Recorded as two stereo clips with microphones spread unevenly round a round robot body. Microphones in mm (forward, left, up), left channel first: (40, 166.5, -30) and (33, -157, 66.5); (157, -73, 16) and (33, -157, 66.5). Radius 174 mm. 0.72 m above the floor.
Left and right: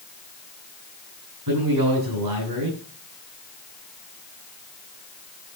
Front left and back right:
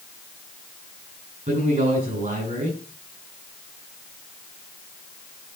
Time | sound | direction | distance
1.5 | a man speaking | 120° right | 8 m